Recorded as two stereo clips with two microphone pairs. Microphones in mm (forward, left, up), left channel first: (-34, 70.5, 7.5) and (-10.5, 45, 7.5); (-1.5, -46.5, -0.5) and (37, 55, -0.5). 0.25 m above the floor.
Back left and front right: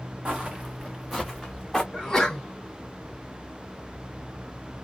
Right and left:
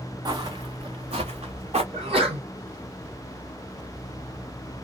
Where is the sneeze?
60° left, 1.9 m.